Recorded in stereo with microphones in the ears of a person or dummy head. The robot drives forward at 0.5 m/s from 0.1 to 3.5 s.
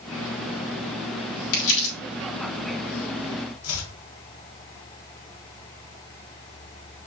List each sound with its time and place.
1.5 s crumpling: 75° left (ahead or behind), 3.5 m
3.6 s chopping: 80° left, 1.2 m